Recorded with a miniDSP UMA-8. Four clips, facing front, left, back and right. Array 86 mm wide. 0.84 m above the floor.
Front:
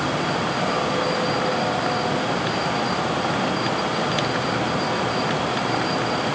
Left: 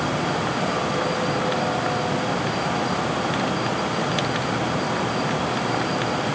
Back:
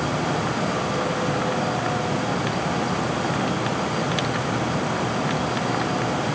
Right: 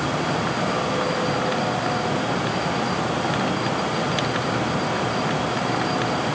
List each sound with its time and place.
Only background noise.